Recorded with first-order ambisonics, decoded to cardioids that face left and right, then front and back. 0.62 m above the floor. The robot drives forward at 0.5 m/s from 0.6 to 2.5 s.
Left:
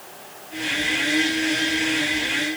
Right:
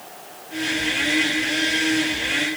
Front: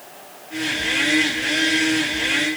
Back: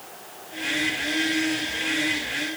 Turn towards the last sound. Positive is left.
No sound to turn to.